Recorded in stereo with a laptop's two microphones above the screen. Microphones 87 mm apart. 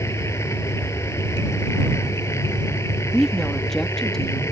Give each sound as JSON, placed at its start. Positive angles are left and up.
{"t": 0.0, "sound": "a machine running", "side_deg": 30}
{"t": 3.1, "sound": "a woman speaking", "side_deg": 5}